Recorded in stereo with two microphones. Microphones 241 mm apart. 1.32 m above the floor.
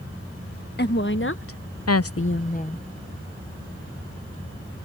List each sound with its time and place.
0.8 s a woman speaking: 45° left (ahead or behind); by 2.9 s 25° left (ahead or behind)